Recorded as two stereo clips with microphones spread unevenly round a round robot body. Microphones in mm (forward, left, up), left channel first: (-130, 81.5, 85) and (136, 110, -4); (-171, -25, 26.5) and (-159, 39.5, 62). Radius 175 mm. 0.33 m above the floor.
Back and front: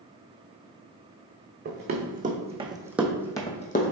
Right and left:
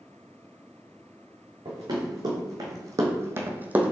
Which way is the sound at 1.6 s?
60° left.